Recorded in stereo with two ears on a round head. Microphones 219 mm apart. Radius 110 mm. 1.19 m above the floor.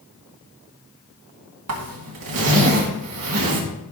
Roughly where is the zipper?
Right.